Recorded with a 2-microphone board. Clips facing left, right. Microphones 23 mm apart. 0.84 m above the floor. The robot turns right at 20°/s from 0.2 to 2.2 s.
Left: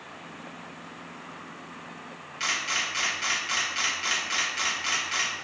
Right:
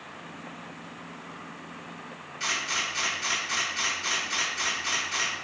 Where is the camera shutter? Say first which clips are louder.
Left 1 dB; 30° left (ahead or behind), 0.9 m.